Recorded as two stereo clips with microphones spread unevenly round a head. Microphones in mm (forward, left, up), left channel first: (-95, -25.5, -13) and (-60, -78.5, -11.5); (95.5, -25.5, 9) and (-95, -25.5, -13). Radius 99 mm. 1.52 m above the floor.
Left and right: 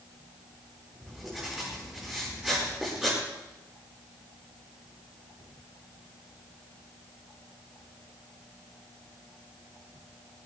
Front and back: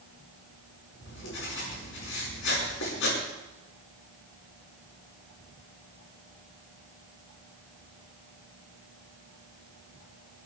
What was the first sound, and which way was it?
Writing, 25° left.